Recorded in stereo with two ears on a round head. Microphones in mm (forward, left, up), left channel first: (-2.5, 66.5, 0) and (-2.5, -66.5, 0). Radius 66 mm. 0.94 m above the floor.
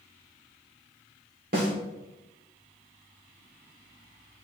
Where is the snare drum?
65° right (ahead or behind), 2.5 m.